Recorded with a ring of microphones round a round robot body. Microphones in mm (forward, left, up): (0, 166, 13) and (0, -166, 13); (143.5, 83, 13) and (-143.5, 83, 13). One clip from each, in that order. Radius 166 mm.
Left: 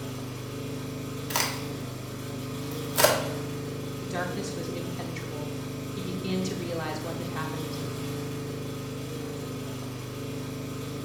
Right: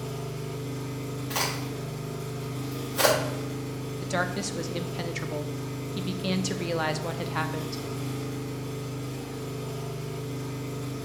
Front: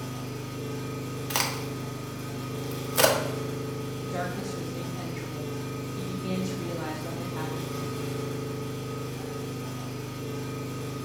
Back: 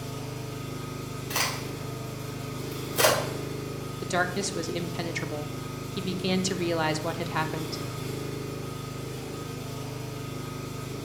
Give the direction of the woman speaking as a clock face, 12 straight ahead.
5 o'clock.